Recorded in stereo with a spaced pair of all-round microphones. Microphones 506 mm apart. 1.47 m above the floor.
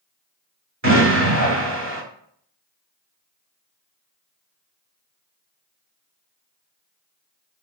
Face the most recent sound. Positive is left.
turn(degrees=-35)  # may be behind; listen again after turning